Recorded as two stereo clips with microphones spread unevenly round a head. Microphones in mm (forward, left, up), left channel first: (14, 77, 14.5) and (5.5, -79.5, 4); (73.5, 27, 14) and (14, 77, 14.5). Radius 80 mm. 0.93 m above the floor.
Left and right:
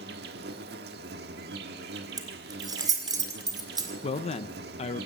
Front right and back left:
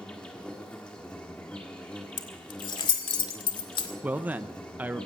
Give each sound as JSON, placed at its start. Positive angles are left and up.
{"t": 0.0, "sound": "an insect", "azimuth_deg": -125, "distance_m": 1.2}
{"t": 2.2, "sound": "keys jangling", "azimuth_deg": -25, "distance_m": 1.9}
{"t": 4.0, "sound": "a man speaking", "azimuth_deg": 90, "distance_m": 0.6}